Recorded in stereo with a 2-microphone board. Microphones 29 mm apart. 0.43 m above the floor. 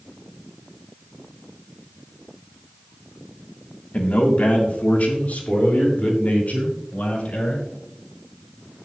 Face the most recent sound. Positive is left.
turn(degrees=70)  # may be behind; listen again after turning